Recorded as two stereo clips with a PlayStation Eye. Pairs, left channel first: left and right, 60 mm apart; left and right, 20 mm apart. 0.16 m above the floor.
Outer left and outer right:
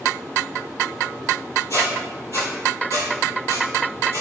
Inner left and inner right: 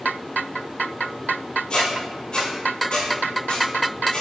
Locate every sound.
1.7 s a squeak: 65° left (ahead or behind), 1.2 m